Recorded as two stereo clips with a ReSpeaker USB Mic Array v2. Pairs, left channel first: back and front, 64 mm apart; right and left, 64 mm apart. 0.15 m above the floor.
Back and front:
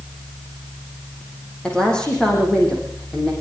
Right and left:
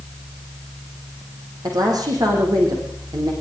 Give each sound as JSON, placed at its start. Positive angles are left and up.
{"t": 1.6, "sound": "a woman speaking", "azimuth_deg": 105, "distance_m": 8.0}